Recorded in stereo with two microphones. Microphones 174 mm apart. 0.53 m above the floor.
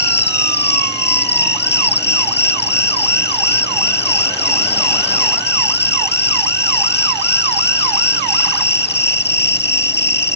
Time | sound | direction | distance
0.0 | an insect | 70° left (ahead or behind) | ?